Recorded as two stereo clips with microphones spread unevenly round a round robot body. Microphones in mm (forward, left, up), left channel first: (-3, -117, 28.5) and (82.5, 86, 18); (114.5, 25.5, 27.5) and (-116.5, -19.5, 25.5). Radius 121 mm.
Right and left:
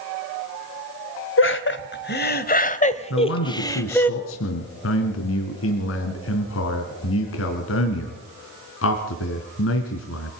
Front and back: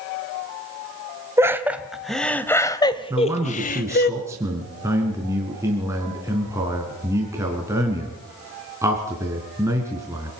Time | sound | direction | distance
1.4 | laughter | 90° right | 2.5 m
3.1 | a man speaking | 90° right | 3.5 m